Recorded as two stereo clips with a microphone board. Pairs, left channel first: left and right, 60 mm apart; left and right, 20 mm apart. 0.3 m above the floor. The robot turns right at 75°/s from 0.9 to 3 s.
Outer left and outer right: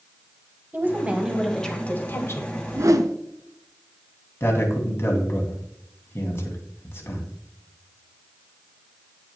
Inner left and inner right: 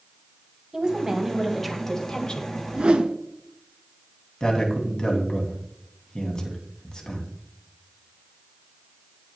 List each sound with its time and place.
0.7 s a woman speaking: 40° right, 1.6 m; by 2.5 s 80° left, 1.6 m
2.6 s a whoosh: 45° right (ahead or behind), 0.8 m; by 3.1 s 70° right (ahead or behind), 0.8 m
4.4 s a man speaking: 45° left (ahead or behind), 2.5 m